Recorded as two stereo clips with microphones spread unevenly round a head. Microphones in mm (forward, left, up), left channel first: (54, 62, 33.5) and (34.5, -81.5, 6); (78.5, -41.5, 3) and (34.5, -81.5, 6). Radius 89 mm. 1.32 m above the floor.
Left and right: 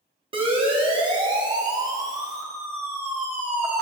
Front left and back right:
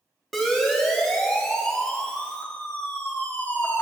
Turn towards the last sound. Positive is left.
turn(degrees=-15)